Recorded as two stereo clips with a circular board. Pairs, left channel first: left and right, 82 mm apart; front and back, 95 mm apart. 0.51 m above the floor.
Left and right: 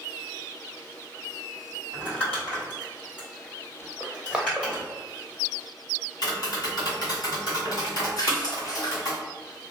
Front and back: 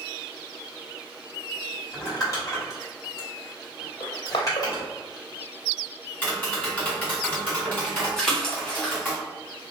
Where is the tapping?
65° left, 1.6 m.